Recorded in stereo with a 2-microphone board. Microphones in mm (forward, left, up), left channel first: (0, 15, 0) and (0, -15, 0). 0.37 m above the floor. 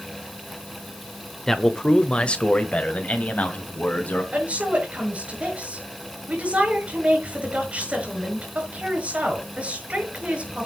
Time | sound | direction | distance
1.5 | a man speaking | 15° left (ahead or behind) | 1.0 m
4.3 | a woman speaking | 40° right (ahead or behind) | 6.5 m